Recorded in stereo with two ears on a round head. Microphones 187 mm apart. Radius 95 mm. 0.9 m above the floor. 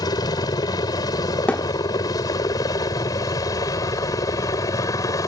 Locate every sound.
0.0 s a helicopter: 20° left (ahead or behind); by 5.3 s 15° left (ahead or behind)
1.5 s a thud: 5° left (ahead or behind)